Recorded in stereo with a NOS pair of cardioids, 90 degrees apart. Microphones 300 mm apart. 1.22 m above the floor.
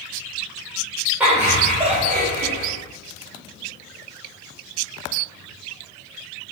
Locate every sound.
1.2 s laughter: 5° right, 1.3 m; by 2.7 s 50° right, 0.9 m